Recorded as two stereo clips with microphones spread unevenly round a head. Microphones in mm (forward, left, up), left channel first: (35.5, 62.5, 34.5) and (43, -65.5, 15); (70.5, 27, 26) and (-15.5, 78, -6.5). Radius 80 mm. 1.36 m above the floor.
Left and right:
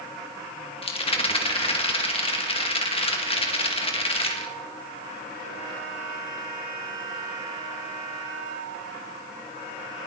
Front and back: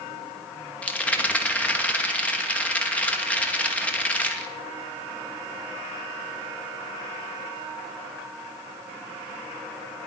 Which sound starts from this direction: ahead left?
A rattle, at 0.8 s.